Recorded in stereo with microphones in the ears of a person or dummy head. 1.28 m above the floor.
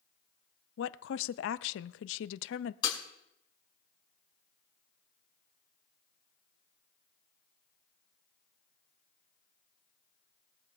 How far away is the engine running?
I don't hear an engine running.